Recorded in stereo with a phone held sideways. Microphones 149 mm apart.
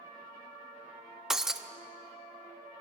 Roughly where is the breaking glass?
Centre.